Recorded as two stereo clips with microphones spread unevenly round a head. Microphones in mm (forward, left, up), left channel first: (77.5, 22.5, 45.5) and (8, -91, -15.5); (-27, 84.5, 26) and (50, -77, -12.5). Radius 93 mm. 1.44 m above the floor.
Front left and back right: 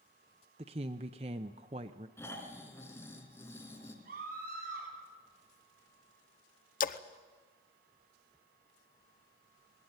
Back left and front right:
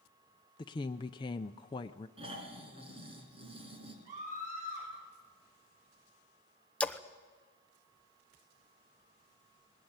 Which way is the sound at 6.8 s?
30° left.